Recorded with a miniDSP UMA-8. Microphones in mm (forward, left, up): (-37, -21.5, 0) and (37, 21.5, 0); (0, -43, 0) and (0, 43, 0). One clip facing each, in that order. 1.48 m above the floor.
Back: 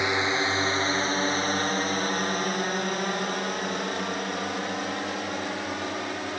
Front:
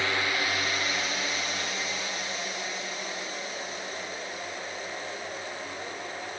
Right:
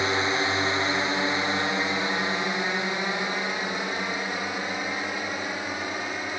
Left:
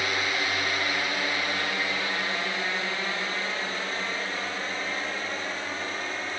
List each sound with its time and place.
0.0 s a drone: 110° right; by 6.4 s 165° right